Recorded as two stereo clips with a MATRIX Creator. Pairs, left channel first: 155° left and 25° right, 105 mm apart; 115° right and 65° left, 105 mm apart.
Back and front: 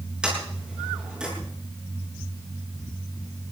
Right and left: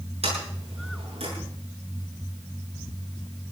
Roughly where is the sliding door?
Ahead left.